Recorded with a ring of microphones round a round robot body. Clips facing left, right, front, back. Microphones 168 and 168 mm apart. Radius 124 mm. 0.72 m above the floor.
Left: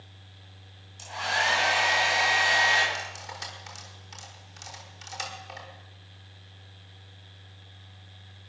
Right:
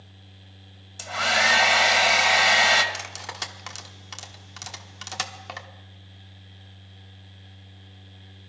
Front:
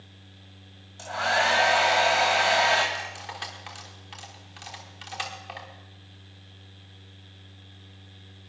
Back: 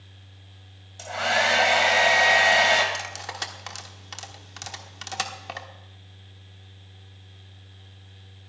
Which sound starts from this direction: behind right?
Cutlery clinking, at 2.9 s.